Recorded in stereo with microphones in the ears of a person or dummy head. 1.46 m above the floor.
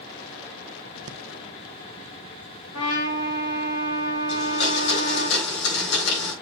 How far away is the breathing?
About 1.0 m.